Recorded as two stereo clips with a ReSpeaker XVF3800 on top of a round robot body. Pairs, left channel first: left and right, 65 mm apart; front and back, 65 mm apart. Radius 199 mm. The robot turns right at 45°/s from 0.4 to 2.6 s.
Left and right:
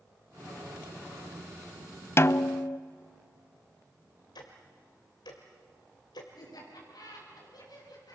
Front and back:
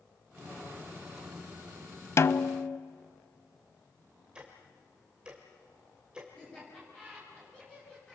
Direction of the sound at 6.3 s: 75° left.